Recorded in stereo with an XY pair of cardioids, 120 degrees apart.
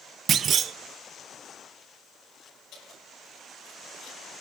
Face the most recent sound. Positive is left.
turn(degrees=70)